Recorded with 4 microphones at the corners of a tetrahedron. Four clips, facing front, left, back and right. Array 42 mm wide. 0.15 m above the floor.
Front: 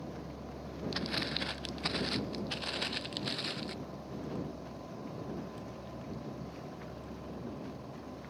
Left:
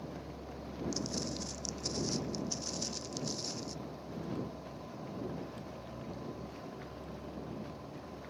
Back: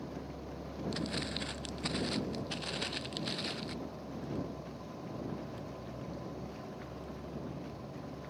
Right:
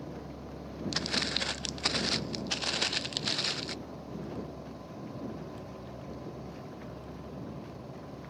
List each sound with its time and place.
0.9 s footsteps: 70° right; by 3.8 s 90° right